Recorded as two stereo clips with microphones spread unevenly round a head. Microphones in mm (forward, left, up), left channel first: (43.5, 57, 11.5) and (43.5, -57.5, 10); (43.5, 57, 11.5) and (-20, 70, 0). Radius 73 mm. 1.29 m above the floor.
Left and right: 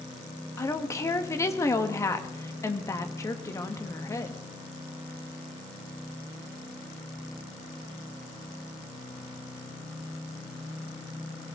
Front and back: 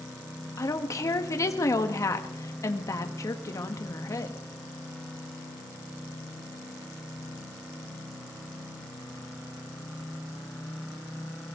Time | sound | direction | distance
0.6 | a woman speaking | 25° left | 1.6 m